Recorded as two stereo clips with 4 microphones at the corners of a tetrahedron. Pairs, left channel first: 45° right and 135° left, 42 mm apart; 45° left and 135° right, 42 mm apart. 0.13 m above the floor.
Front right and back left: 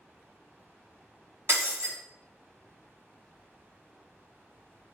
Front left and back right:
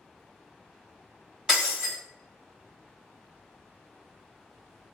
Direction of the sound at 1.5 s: 150° left.